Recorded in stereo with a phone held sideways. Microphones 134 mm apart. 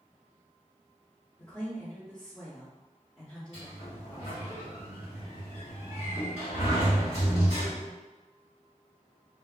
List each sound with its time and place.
1.4 s a woman speaking: 10° left (ahead or behind), 0.9 m
3.5 s a sliding door: 55° left (ahead or behind), 1.7 m